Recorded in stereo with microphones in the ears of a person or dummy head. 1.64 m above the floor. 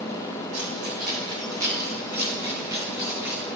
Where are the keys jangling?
60° right (ahead or behind), 3.5 m; by 3.4 s 10° right (ahead or behind), 4.5 m.